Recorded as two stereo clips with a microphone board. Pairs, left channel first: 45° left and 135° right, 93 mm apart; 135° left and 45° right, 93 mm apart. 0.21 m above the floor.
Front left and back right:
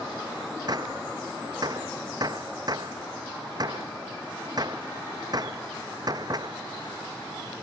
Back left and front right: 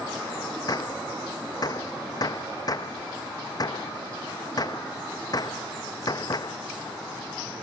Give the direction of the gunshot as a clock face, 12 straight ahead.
6 o'clock.